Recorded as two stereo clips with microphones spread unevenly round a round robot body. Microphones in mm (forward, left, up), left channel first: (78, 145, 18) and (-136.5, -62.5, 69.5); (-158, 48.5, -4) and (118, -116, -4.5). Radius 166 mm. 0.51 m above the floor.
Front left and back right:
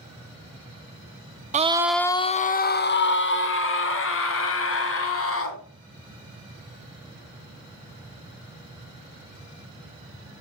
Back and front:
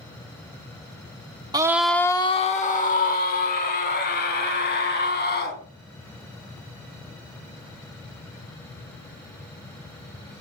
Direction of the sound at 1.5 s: 85° right.